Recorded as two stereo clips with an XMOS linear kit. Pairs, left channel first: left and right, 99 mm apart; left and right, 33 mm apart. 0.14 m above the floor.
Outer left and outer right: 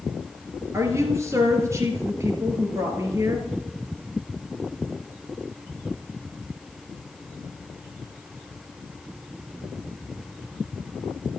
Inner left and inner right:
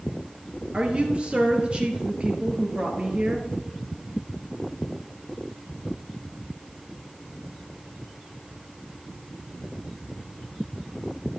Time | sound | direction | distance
0.7 | a woman speaking | 30° right (ahead or behind) | 2 m